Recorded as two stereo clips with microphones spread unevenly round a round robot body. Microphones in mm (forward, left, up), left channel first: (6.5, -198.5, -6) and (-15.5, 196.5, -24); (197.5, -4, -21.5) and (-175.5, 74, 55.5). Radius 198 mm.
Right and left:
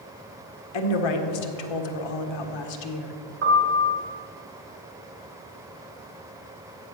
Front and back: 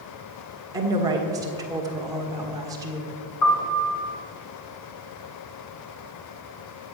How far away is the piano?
About 2.5 m.